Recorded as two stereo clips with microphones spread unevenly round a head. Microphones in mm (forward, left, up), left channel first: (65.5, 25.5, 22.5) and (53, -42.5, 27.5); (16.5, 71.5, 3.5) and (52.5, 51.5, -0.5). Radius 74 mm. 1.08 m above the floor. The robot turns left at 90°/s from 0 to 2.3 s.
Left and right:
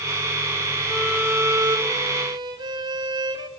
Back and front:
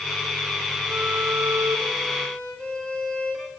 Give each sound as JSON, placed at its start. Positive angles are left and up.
{"t": 0.9, "sound": "a violin", "azimuth_deg": -5, "distance_m": 1.8}